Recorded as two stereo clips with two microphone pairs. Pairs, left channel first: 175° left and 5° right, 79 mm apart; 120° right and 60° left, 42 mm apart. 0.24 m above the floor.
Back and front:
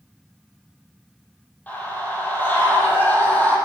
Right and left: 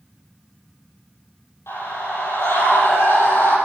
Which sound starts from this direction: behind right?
A scream, at 1.7 s.